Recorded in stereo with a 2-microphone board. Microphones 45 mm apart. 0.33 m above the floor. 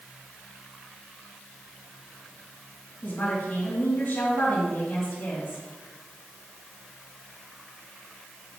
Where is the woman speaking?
40° left (ahead or behind), 2.5 m.